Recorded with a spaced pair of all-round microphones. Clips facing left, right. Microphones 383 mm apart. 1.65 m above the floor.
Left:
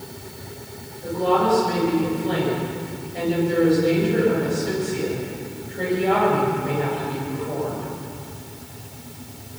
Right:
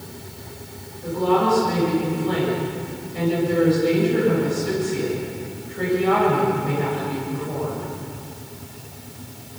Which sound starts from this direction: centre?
A woman speaking, at 1.0 s.